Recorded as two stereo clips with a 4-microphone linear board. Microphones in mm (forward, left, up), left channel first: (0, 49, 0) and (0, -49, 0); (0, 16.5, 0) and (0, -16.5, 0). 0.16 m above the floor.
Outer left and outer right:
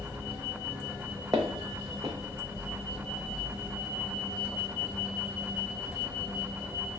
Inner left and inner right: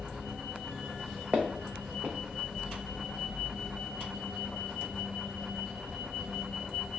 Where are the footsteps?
35° right (ahead or behind), 0.6 m.